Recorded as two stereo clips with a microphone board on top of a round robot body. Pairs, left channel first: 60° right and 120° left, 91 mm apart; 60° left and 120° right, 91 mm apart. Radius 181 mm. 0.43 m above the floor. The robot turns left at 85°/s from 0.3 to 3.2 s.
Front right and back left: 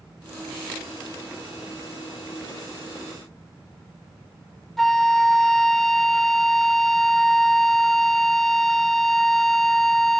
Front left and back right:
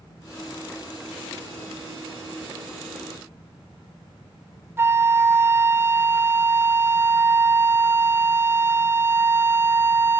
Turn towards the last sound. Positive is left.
turn(degrees=-145)